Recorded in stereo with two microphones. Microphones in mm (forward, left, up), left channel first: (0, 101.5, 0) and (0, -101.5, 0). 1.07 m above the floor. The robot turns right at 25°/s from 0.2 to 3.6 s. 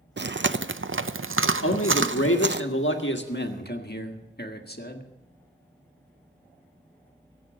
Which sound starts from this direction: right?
Chewing, at 0.2 s.